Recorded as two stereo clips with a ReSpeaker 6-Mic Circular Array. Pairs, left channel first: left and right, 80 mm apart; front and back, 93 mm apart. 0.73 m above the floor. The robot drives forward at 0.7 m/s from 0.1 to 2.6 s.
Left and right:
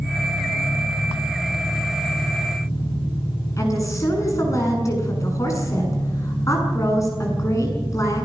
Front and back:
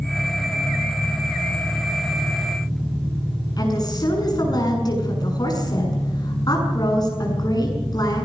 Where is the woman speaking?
40° left, 7 m.